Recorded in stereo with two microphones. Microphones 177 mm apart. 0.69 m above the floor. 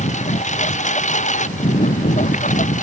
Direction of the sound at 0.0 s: 40° left (ahead or behind).